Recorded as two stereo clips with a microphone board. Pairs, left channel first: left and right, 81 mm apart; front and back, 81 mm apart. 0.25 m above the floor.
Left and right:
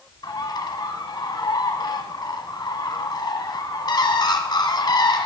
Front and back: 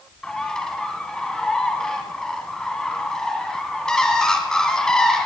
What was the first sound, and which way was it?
A bird, 80° left.